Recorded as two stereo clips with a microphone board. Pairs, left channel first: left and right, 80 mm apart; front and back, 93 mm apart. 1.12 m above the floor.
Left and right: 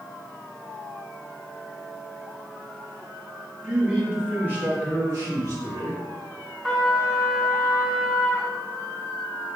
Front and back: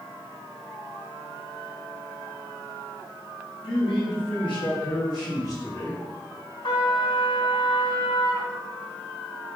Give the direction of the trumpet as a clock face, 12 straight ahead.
12 o'clock.